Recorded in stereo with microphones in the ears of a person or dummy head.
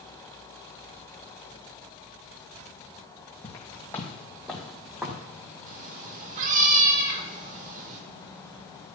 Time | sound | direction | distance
3.4 | footsteps | 20° left (ahead or behind) | 2.5 m
5.7 | a cat meowing | 40° right (ahead or behind) | 1.3 m